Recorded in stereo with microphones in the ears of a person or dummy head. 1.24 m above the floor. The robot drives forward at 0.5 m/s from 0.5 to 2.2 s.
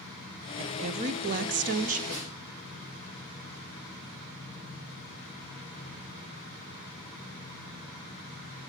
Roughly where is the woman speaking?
Right.